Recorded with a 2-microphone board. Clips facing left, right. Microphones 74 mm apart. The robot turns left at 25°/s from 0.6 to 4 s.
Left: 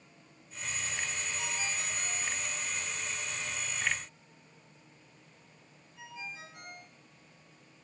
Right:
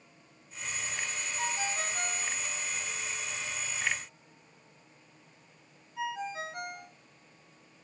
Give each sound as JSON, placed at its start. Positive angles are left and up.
{"t": 1.4, "sound": "a ringtone", "side_deg": -35, "distance_m": 2.0}